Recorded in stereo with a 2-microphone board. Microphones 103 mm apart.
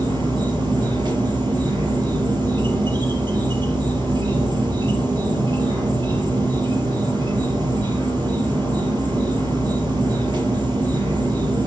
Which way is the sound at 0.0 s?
45° right (ahead or behind).